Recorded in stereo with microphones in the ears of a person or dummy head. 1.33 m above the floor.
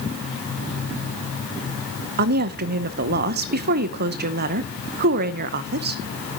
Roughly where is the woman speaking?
Right.